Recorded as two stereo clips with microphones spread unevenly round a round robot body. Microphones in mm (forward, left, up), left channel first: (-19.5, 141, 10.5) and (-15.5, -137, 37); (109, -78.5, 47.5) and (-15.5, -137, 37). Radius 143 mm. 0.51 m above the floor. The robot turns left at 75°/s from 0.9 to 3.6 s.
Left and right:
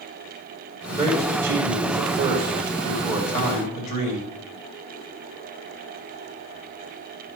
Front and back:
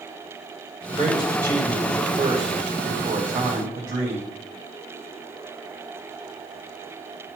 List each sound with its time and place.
0.9 s a man speaking: 5° right, 2.5 m; by 4.3 s 150° left, 2.5 m